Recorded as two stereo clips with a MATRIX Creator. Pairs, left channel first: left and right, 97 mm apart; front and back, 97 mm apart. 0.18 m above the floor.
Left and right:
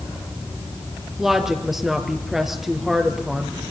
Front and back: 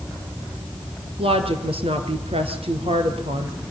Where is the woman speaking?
175° right, 3.5 m.